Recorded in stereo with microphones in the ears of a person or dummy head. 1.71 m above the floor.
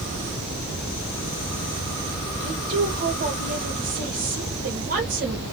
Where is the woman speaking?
60° right (ahead or behind), 1.9 m.